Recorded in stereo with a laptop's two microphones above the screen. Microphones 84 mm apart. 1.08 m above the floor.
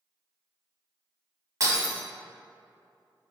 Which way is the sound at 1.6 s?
45° right (ahead or behind).